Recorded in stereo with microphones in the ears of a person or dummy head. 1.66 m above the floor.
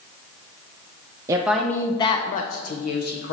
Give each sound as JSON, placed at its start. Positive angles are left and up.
{"t": 1.3, "sound": "a woman speaking", "side_deg": -20, "distance_m": 0.6}